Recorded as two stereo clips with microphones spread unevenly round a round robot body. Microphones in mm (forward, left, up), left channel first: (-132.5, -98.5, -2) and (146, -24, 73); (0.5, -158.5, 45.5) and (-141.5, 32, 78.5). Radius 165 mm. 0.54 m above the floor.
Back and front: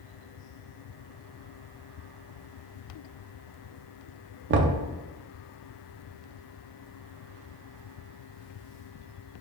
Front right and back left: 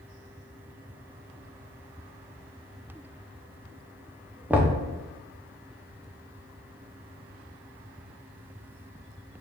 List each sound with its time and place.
4.5 s knocking: 30° left, 0.5 m